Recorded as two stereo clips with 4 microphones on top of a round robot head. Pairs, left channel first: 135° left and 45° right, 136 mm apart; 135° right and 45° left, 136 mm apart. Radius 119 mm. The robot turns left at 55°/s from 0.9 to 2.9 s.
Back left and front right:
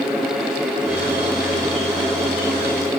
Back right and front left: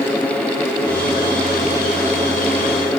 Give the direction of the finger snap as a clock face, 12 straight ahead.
No finger snap in this recording.